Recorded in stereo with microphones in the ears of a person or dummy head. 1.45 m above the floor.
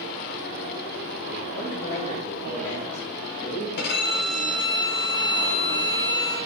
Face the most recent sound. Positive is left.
turn(degrees=60)  # may be behind; listen again after turning